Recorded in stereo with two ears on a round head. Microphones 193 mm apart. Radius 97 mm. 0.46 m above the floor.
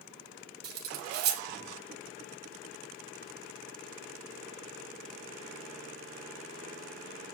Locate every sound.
0.6 s cutlery clinking: 50° right (ahead or behind), 1.5 m